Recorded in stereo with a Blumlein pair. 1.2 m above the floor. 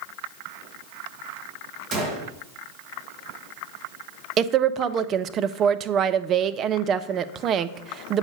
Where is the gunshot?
30° right, 2 m.